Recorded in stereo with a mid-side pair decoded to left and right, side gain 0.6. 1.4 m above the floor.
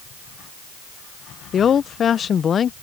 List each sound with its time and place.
1.5 s a woman speaking: 40° left